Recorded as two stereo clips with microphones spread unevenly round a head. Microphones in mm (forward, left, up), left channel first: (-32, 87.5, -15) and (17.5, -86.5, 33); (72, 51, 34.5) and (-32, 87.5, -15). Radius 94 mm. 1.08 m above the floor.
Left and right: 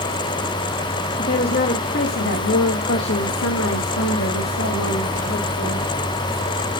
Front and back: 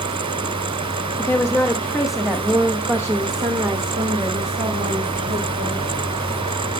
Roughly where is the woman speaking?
Ahead left.